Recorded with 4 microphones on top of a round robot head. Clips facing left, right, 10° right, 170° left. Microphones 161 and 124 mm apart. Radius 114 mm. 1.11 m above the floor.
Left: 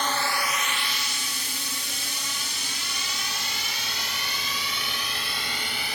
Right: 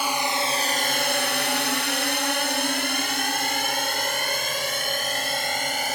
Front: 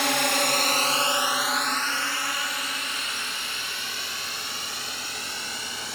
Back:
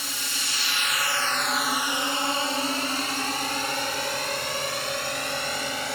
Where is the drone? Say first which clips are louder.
Right 2 dB, front 13 dB; 10° right; by 6.0 s 140° right.